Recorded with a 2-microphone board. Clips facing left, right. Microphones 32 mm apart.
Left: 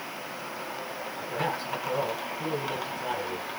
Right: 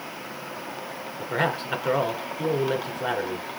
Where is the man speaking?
60° right (ahead or behind), 3 m.